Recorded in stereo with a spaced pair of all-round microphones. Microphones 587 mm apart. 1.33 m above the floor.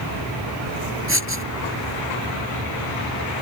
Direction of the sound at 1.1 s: 20° right (ahead or behind).